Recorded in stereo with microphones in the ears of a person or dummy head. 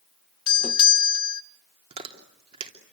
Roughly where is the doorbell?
Left.